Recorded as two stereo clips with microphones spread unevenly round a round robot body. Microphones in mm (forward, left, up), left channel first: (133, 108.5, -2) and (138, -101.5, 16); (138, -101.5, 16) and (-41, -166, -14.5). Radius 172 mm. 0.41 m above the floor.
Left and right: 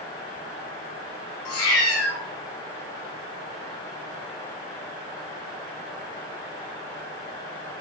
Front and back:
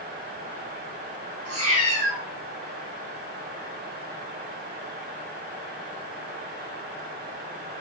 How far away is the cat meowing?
About 1.0 m.